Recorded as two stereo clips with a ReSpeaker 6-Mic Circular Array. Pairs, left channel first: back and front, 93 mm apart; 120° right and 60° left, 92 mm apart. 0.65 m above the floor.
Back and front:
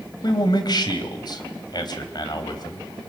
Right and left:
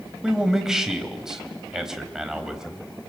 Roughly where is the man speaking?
Behind left.